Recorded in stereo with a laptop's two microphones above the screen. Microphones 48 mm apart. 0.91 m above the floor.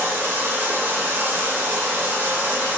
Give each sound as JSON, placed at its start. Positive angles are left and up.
{"t": 0.0, "sound": "running water", "side_deg": -40, "distance_m": 1.5}